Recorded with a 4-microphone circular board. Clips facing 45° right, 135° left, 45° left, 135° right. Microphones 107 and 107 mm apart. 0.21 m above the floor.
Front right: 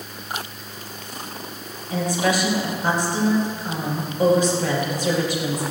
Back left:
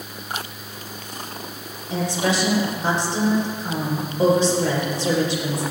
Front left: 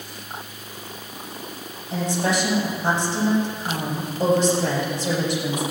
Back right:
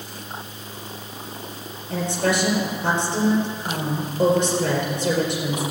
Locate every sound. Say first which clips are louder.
1.9 s a woman speaking: front right 1 dB, back right 1 dB; 160° right, 4.5 m